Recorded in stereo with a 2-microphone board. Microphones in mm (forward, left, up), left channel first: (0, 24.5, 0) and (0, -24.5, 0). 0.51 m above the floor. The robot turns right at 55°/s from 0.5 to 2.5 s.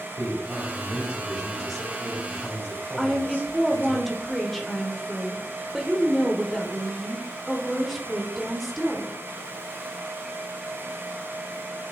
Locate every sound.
0.2 s a man speaking: 55° right, 3 m; by 4.0 s 55° left, 3 m
3.0 s a woman speaking: 5° left (ahead or behind), 1.7 m